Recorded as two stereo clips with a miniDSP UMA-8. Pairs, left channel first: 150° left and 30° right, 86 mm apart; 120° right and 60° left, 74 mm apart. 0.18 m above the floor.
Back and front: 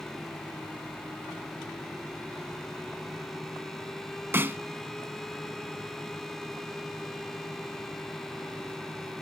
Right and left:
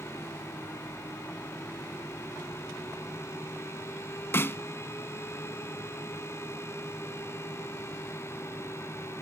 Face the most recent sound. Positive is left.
turn(degrees=-80)